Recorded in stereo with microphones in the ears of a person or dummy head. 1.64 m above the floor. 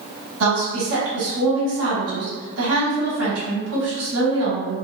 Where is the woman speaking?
80° right, 1.7 m.